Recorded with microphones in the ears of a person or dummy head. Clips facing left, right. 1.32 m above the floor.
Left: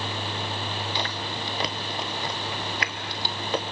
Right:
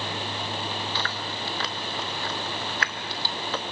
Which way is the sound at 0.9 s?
15° left (ahead or behind).